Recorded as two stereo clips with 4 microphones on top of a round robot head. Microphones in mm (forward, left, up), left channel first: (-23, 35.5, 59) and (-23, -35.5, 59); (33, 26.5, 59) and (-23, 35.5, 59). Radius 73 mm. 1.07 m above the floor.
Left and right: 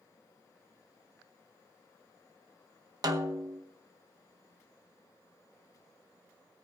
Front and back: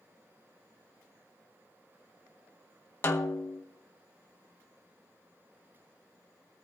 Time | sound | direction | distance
3.0 | a snare drum | 60° right | 0.9 m